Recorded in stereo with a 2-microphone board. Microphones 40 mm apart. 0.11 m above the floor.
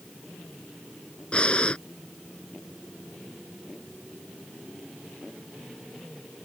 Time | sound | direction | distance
1.3 | breathing | 30° left (ahead or behind) | ?